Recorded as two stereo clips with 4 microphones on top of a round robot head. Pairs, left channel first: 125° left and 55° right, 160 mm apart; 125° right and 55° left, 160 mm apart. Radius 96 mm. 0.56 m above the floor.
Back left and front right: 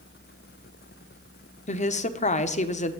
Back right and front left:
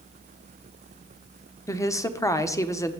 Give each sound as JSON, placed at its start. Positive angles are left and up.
{"t": 1.7, "sound": "a woman speaking", "azimuth_deg": 165, "distance_m": 1.1}